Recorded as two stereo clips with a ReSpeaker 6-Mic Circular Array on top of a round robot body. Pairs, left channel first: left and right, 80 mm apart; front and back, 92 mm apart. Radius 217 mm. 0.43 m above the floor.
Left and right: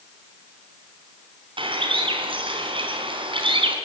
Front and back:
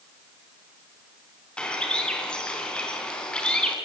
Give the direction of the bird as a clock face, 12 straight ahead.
3 o'clock.